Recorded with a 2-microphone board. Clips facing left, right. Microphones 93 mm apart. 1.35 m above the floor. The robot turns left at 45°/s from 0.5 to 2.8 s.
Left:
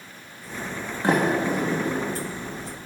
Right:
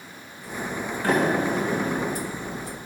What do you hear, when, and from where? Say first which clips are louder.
1.0 s a sliding door: left 1 dB; 20° left (ahead or behind), 2.5 m; by 2.0 s 65° left (ahead or behind), 2.5 m